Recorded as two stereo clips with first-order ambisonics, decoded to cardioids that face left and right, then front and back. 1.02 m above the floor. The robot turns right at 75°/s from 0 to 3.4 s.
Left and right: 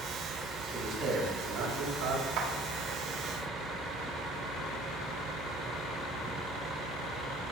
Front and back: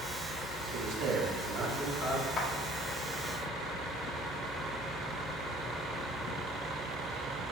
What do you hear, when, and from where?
0.7 s a man speaking: 175° right, 3 m; by 2.3 s 60° right, 3 m
2.4 s a clap: 60° right, 1.4 m; by 2.5 s 50° right, 1.4 m